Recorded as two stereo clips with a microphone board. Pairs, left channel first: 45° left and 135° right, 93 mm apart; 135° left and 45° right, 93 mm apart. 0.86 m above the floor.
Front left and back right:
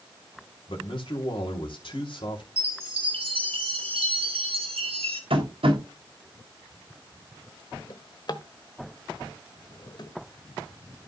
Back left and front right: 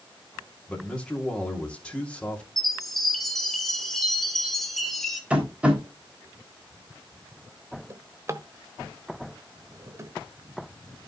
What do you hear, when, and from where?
0.7 s a man speaking: 55° left, 2.5 m
2.6 s a chime: 140° right, 2 m
5.3 s tapping: 125° right, 3.5 m
7.9 s a drawer: 10° left, 1.1 m